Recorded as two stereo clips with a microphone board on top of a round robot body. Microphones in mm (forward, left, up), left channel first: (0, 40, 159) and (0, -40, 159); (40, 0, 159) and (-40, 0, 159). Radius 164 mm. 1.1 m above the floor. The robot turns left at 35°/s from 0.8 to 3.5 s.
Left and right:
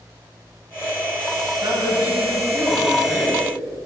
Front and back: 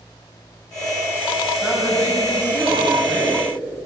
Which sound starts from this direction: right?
A woman speaking, at 1.6 s.